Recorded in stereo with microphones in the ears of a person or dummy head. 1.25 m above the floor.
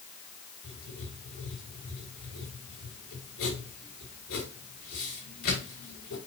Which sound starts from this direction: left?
Writing, at 0.6 s.